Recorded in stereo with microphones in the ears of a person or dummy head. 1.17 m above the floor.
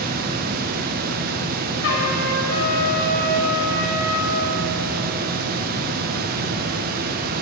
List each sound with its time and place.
0.0 s a fan: 50° right (ahead or behind), 0.8 m
1.8 s a trumpet: 70° left (ahead or behind), 2 m